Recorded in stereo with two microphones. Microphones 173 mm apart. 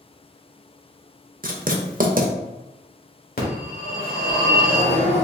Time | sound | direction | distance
1.4 | writing | 50° right (ahead or behind) | 0.6 m
3.4 | a phone ringing | 55° left (ahead or behind) | 1.5 m